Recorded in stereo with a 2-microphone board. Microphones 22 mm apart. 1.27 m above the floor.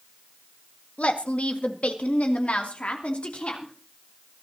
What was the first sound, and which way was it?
A woman speaking, 80° left.